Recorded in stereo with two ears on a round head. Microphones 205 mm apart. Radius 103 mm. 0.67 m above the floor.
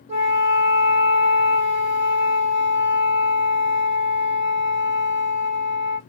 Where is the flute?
30° right (ahead or behind), 1.3 m.